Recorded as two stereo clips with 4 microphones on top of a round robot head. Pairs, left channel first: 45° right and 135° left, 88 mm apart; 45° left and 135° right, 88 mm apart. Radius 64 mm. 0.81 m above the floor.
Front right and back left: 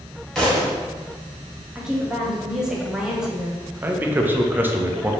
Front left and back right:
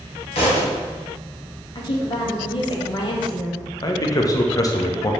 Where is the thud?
40° left, 1.7 m.